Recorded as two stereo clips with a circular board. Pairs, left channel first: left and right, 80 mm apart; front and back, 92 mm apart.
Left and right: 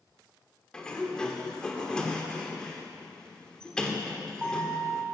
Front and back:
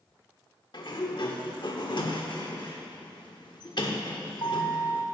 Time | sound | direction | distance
0.7 | a sliding door | 10° left | 1.3 m